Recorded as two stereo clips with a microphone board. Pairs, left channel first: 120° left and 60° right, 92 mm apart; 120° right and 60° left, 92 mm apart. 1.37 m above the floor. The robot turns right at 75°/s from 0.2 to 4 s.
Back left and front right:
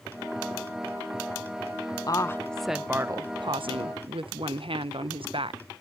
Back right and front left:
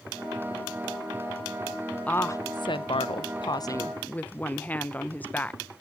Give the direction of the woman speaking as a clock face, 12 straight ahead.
6 o'clock.